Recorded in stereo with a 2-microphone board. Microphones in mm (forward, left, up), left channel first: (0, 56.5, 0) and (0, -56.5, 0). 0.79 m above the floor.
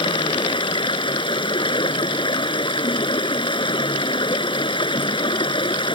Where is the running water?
45° left (ahead or behind).